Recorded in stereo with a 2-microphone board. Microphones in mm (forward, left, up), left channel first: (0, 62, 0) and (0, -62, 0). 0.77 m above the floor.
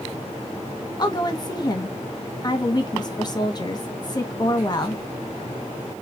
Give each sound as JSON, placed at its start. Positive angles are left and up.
{"t": 1.0, "sound": "a woman speaking", "side_deg": 30, "distance_m": 1.0}